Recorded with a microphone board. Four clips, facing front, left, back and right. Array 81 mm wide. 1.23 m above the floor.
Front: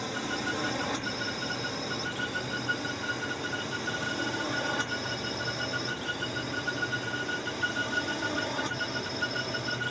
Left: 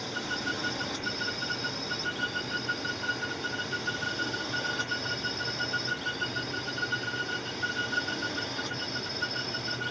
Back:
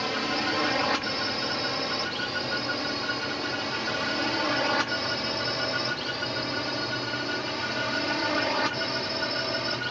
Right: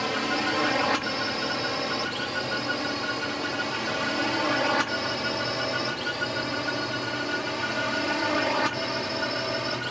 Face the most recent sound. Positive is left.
turn(degrees=-120)